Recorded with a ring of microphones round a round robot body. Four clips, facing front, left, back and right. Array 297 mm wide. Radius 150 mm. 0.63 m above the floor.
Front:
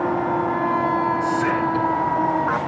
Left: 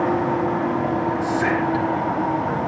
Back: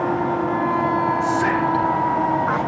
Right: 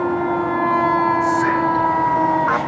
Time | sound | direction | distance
1.2 | whispering | 130° left | 7 m